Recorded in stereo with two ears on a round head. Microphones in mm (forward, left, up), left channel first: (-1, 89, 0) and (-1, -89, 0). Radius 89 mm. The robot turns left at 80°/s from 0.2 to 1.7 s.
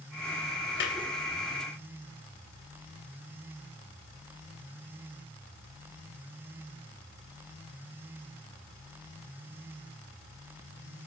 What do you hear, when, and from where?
0.8 s a clap: 65° left (ahead or behind), 2.5 m; by 1.0 s 60° left (ahead or behind), 2.5 m